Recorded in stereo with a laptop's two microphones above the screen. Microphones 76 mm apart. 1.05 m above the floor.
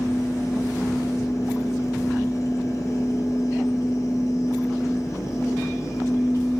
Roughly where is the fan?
Left.